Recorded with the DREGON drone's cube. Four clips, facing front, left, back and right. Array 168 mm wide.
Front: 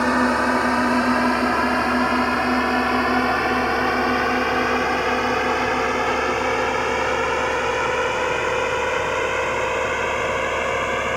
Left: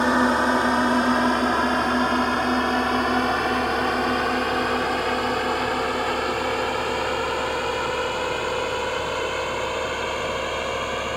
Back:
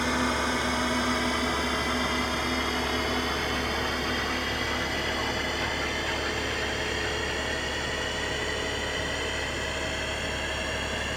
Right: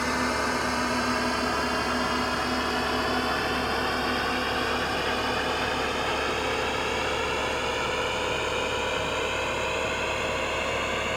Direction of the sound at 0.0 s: 40° left.